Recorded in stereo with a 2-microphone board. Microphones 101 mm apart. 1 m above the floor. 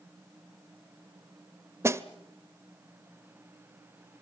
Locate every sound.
1.8 s a snare drum: 25° right (ahead or behind), 0.9 m